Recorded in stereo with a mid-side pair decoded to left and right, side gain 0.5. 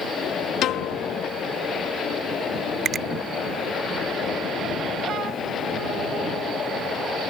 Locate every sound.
0.6 s a piano: 70° left
2.9 s a finger snap: 50° right